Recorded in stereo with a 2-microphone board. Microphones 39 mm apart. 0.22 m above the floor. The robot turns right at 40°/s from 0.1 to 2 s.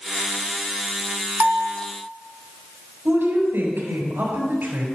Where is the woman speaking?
70° right (ahead or behind), 4.5 m.